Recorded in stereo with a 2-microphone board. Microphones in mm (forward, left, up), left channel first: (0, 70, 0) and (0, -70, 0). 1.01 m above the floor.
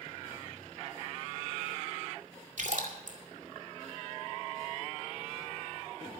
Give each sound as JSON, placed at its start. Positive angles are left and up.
{"t": 2.6, "sound": "a splash", "side_deg": -65, "distance_m": 2.0}